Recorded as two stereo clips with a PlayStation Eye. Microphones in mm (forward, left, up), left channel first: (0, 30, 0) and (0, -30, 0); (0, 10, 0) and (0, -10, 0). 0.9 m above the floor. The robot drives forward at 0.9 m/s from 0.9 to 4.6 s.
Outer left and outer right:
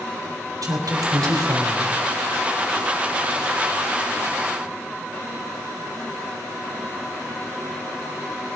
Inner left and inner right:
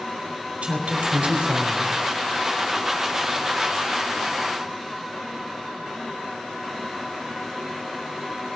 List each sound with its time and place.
0.6 s a woman speaking: 80° right, 3.5 m; by 1.9 s 75° right (ahead or behind), 3.5 m